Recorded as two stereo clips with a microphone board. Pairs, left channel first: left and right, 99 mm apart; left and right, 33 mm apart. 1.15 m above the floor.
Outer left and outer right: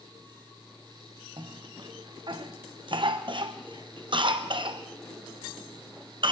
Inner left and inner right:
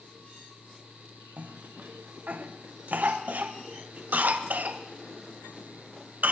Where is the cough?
55° right (ahead or behind), 0.8 m.